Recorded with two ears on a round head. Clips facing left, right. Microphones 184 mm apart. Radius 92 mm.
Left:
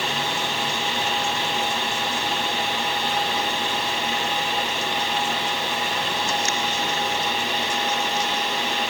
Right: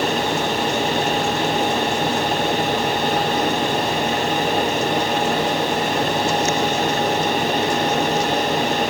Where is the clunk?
I don't hear a clunk.